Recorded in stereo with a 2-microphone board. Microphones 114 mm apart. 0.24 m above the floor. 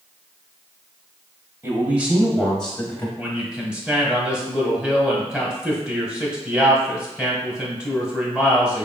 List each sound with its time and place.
1.6 s a man speaking: 20° right (ahead or behind), 1.0 m; by 3.1 s 20° left (ahead or behind), 1.0 m
3.2 s a man speaking: 10° right (ahead or behind), 1.2 m